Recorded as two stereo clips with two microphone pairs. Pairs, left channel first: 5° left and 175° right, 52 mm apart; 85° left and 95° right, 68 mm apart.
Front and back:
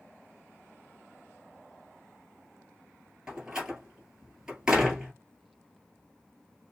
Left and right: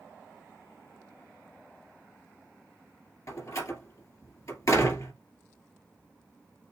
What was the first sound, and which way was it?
A door slam, 110° left.